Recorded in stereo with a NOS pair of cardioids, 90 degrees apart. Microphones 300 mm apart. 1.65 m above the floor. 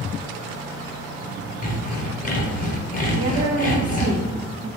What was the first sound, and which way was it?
Sawing, 25° left.